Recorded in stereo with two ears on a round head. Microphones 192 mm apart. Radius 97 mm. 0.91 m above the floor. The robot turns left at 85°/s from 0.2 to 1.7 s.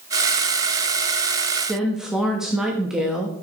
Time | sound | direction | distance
1.7 | a woman speaking | 5° right (ahead or behind) | 1.1 m